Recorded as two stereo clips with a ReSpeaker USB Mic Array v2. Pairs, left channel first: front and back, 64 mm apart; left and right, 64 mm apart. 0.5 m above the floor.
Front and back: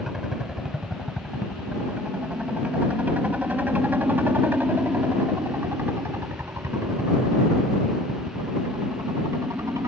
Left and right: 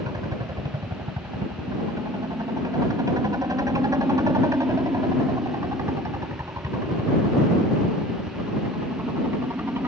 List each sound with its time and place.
0.0 s a helicopter: 95° right; by 9.9 s 140° right